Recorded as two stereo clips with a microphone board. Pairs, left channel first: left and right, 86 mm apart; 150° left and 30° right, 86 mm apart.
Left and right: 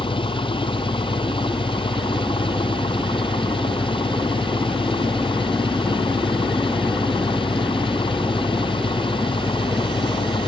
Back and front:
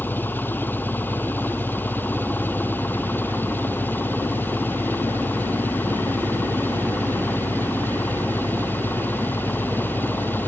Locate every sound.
0.0 s an engine running: 85° left